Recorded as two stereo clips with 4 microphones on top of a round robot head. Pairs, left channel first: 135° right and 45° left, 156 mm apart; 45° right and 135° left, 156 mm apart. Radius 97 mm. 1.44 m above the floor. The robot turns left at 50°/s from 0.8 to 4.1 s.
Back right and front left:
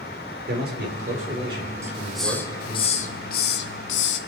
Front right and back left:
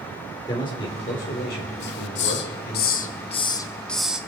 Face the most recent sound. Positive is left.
turn(degrees=-140)